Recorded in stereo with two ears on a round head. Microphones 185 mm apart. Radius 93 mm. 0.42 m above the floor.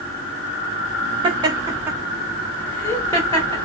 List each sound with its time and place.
1.2 s laughter: 25° right (ahead or behind), 0.9 m; by 3.6 s 20° left (ahead or behind), 1.0 m